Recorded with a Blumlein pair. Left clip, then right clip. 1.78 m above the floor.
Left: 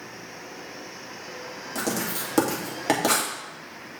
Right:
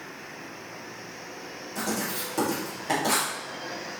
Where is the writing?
30° left, 2.5 m.